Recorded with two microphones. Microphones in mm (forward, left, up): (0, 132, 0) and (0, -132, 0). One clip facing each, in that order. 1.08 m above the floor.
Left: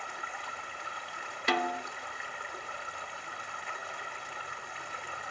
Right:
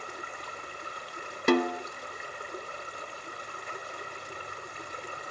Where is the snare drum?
50° right (ahead or behind), 1.0 m.